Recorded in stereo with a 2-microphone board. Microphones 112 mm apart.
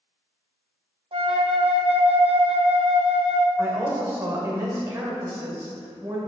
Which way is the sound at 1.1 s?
55° right (ahead or behind).